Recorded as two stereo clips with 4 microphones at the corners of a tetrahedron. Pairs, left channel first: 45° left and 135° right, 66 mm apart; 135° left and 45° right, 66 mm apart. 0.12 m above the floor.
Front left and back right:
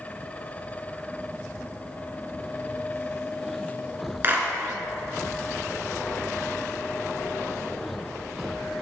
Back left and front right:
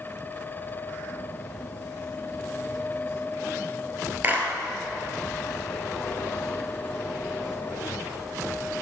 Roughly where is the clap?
Right.